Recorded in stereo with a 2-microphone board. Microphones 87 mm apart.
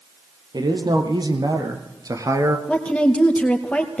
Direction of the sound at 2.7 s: 15° left (ahead or behind).